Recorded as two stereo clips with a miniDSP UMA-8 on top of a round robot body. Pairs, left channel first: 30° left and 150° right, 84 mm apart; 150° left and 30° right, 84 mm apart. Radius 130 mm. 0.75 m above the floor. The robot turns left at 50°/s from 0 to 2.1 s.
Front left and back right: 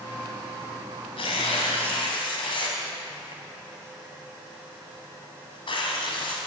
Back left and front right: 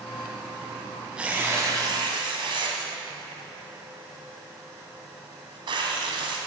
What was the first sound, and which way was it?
Tearing paper, 50° left.